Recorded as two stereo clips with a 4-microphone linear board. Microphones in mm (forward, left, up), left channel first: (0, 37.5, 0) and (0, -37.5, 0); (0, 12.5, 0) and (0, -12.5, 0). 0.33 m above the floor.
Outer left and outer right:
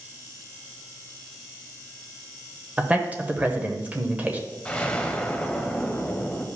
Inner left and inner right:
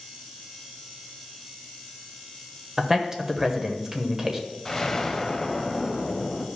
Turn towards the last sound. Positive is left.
turn(degrees=15)  # may be behind; listen again after turning